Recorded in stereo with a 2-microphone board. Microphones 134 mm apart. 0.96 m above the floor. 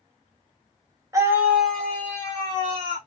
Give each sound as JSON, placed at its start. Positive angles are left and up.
{"t": 1.1, "sound": "a scream", "side_deg": -25, "distance_m": 1.2}